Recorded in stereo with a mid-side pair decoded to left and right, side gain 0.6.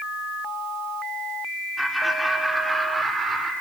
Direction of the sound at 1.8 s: Straight ahead.